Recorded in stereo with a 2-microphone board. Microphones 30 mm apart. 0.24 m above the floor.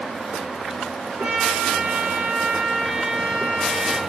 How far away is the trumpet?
About 3 m.